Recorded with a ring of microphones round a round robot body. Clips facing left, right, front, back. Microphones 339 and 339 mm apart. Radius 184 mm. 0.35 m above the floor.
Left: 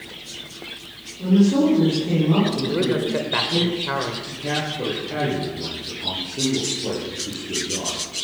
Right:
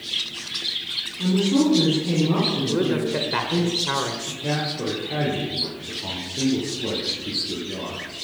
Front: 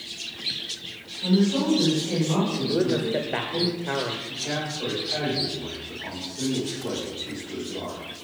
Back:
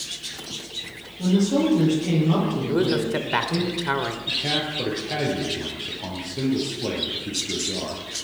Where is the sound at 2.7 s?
170° right, 1.4 m.